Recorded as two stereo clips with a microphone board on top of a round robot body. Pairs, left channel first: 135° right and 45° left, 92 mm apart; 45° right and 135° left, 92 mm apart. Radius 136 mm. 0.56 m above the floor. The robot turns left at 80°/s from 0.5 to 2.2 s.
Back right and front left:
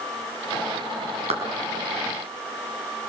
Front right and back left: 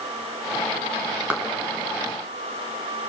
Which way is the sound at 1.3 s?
55° left.